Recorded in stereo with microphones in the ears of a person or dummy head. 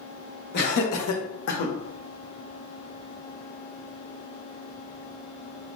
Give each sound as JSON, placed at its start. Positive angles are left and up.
{"t": 0.5, "sound": "laughter", "side_deg": 65, "distance_m": 1.1}